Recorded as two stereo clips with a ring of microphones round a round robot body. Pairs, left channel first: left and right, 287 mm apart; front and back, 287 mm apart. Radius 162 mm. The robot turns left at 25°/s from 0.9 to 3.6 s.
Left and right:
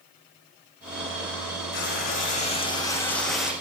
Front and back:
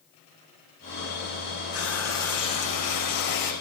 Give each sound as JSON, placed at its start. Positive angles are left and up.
{"t": 1.7, "sound": "frying", "azimuth_deg": 40, "distance_m": 10.0}